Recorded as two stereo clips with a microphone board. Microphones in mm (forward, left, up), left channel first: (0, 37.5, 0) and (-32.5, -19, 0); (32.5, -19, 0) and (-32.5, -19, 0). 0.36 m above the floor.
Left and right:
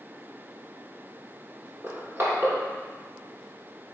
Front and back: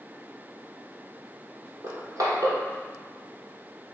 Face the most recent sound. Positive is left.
turn(degrees=-170)